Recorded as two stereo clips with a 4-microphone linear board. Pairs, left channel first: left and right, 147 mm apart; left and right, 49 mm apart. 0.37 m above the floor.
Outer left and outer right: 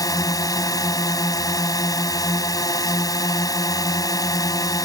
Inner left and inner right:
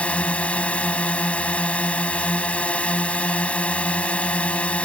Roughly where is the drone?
Left.